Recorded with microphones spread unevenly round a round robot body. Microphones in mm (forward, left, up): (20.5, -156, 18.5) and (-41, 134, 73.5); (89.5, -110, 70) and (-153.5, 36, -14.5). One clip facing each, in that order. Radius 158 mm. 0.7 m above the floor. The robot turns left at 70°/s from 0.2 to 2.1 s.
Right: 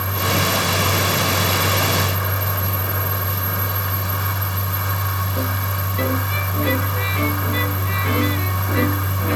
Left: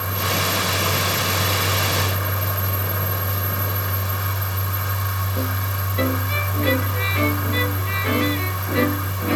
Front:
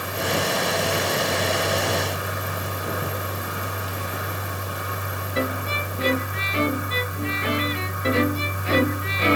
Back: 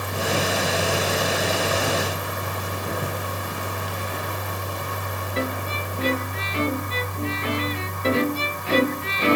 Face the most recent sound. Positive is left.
No sound to turn to.